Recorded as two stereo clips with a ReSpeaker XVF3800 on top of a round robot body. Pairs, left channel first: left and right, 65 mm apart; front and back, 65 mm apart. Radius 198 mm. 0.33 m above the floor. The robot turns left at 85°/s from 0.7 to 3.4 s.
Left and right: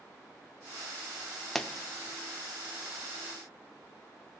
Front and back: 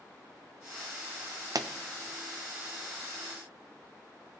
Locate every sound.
1.6 s a pop: 175° left, 0.6 m; by 1.7 s 165° left, 0.6 m